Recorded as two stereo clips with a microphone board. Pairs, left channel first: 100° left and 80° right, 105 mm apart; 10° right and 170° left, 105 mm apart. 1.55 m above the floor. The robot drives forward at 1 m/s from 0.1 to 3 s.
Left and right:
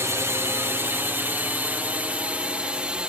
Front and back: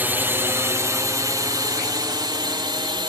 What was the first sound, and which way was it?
A drone, 130° right.